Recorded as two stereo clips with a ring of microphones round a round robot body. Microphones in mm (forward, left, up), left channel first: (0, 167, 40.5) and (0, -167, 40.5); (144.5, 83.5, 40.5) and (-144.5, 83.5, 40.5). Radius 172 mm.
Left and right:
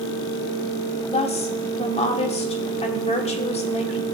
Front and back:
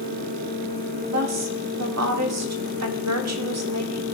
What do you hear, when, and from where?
1.1 s a woman speaking: 160° left, 1.5 m